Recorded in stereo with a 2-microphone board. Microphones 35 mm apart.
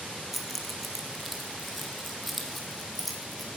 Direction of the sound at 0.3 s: Centre (ahead or behind).